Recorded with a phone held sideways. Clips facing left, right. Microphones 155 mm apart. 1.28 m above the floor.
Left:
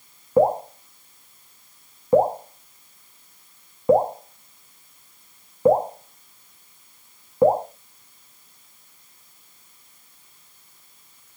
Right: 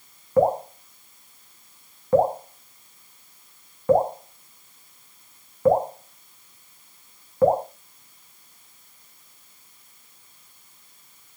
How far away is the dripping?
About 0.9 m.